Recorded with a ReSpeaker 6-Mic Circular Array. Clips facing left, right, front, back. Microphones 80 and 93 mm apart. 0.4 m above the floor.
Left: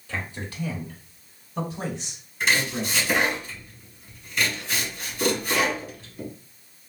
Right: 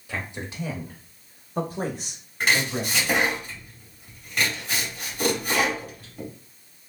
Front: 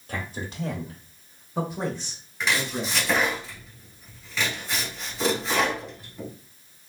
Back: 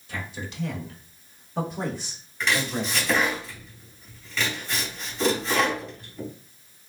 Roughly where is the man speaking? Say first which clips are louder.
Even, front 2 dB; ahead.